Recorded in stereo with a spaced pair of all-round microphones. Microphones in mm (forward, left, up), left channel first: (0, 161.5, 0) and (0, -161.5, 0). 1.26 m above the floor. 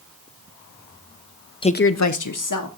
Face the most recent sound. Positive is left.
turn(degrees=65)  # may be behind; listen again after turning